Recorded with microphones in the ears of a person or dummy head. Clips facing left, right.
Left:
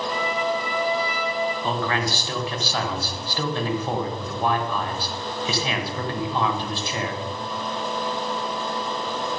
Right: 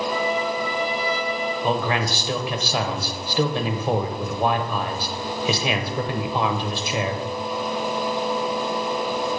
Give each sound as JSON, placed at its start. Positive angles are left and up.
{"t": 0.1, "sound": "a trumpet", "side_deg": 55, "distance_m": 3.0}
{"t": 1.6, "sound": "a man speaking", "side_deg": -10, "distance_m": 1.1}